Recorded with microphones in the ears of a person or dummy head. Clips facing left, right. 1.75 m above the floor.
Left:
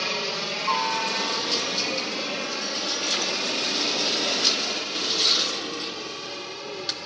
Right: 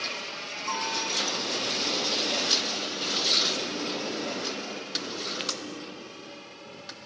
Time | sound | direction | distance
0.0 | a helicopter | 60° left (ahead or behind) | ?